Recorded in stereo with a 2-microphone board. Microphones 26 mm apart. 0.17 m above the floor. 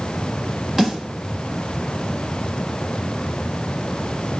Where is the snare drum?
15° right (ahead or behind), 1.4 m.